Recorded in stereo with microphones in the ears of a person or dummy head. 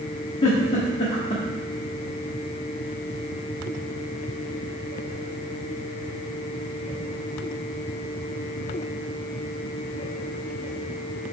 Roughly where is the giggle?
Left.